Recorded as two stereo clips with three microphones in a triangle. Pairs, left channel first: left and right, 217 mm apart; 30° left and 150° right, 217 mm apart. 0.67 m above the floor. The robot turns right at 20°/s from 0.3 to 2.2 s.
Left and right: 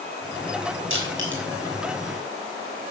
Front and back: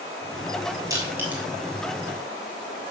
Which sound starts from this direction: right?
Crushing, at 0.9 s.